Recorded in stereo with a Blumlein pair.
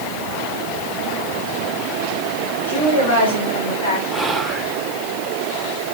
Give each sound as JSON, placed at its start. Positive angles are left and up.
{"t": 2.7, "sound": "a woman speaking", "azimuth_deg": 65, "distance_m": 3.0}
{"t": 4.1, "sound": "whispering", "azimuth_deg": 0, "distance_m": 1.1}